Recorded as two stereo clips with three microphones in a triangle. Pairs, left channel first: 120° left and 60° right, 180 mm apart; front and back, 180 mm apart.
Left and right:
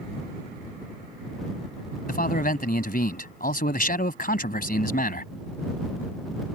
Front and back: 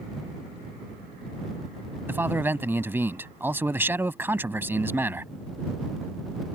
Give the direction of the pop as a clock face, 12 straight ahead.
No pop in this recording.